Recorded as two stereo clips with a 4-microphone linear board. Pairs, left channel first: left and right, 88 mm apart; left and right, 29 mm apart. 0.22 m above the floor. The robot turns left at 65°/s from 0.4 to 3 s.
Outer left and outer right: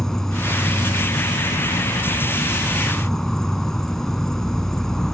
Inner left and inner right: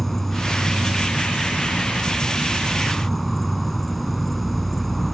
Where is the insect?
175° left; by 5.2 s 5° left.